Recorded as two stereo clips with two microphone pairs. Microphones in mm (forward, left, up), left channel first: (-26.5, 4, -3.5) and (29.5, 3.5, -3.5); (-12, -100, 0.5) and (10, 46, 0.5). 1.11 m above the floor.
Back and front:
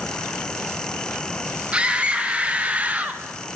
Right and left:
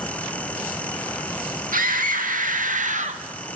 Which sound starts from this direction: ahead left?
A scream, at 1.7 s.